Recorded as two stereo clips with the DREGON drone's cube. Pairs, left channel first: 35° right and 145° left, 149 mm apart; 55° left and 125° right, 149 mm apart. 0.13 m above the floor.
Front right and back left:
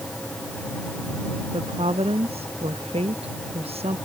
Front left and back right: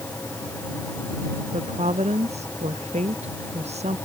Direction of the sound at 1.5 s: 165° right.